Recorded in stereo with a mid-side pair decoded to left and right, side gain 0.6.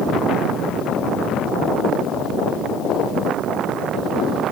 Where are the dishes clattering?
I don't hear dishes clattering.